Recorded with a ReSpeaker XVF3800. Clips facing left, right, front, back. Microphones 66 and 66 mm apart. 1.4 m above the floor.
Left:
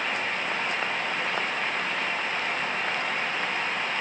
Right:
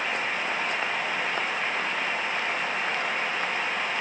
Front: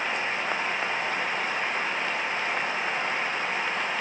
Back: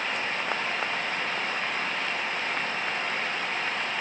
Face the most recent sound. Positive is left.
No sound to turn to.